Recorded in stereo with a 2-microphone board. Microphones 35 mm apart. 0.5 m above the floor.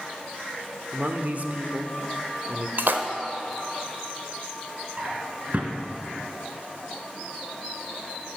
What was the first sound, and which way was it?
A man speaking, 50° right (ahead or behind).